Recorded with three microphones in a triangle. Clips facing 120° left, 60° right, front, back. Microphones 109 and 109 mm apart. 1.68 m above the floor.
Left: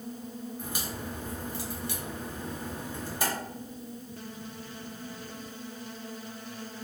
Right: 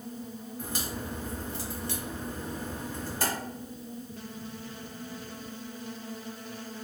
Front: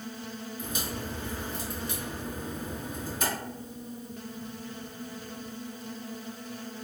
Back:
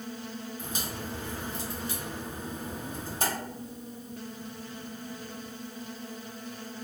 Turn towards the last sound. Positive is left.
turn(degrees=-170)